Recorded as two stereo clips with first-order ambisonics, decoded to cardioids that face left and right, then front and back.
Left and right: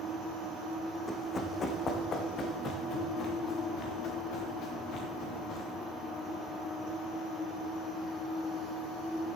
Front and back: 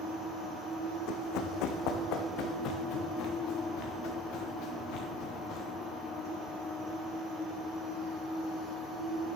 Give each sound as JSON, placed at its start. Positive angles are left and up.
{"t": 1.1, "sound": "running footsteps", "azimuth_deg": 15, "distance_m": 1.3}